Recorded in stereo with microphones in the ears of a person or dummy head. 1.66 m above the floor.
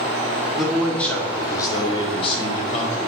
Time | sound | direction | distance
0.6 | a man speaking | centre (ahead or behind) | 1.3 m